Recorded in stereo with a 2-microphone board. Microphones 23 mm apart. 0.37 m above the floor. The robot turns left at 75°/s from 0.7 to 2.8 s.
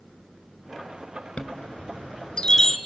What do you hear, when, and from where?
1.4 s a chime: 65° left (ahead or behind), 0.8 m; by 2.8 s 10° left (ahead or behind), 0.8 m